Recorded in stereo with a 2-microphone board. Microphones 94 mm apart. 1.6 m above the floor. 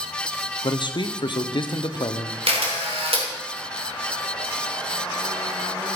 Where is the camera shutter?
85° right, 3 m.